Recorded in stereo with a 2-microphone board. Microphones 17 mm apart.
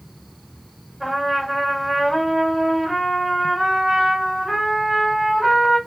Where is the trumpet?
5° right (ahead or behind), 1.7 m.